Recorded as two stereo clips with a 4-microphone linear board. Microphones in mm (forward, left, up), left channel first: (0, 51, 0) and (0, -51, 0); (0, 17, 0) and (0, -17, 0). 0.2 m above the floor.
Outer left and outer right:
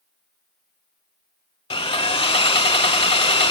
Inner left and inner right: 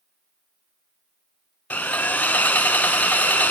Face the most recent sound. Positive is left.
turn(degrees=65)  # may be behind; listen again after turning